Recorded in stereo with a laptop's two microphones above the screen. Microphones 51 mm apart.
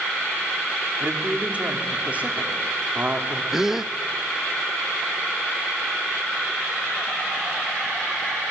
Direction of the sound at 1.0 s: 30° right (ahead or behind).